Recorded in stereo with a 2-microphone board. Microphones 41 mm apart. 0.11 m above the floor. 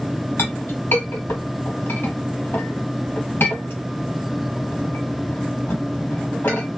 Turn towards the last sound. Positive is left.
turn(degrees=60)  # may be behind; listen again after turning